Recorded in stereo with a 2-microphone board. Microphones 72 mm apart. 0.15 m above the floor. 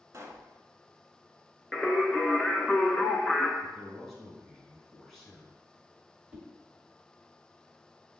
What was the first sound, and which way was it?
A pop, 45° right (ahead or behind).